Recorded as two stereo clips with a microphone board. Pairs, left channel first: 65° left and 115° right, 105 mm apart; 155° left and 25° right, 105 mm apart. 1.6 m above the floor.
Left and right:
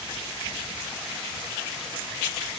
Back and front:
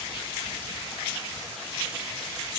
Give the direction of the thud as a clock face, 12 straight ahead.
I don't hear a thud.